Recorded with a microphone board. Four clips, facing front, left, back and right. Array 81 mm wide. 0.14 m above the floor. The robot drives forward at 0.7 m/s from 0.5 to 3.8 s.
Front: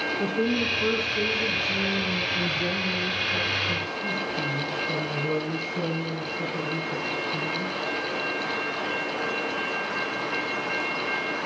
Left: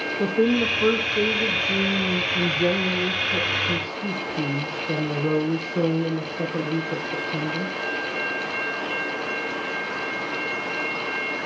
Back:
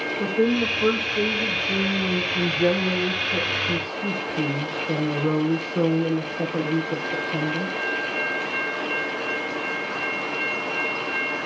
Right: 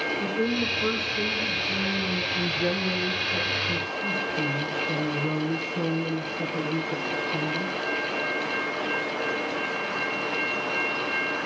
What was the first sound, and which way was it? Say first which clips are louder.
A woman speaking: left 9 dB, back 5 dB; 100° left.